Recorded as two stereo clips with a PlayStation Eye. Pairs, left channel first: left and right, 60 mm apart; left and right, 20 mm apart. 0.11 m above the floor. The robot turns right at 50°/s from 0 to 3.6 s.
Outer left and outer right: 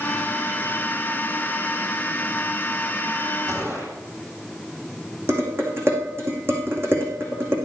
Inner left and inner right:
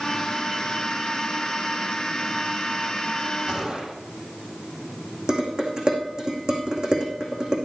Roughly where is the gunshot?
Right.